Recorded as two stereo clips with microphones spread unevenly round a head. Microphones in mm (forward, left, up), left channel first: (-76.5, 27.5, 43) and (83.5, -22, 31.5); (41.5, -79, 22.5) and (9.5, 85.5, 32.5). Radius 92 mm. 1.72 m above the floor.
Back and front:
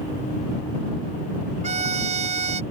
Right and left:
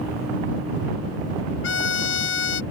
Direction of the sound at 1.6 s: 70° right.